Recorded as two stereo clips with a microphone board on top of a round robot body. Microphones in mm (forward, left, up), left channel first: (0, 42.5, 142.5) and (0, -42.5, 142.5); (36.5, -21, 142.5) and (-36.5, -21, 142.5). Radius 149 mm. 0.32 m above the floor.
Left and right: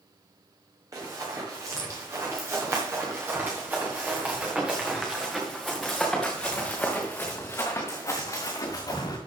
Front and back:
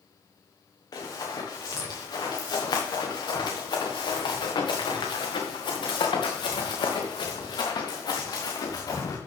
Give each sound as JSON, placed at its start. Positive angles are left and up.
{"t": 0.9, "sound": "running footsteps", "azimuth_deg": -40, "distance_m": 4.0}